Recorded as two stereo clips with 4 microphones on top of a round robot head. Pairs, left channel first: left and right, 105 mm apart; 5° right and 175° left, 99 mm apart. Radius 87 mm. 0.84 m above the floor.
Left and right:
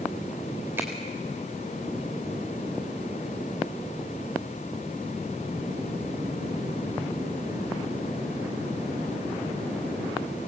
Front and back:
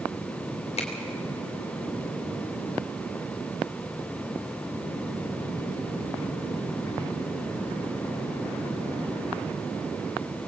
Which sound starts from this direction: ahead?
A finger snap, at 0.8 s.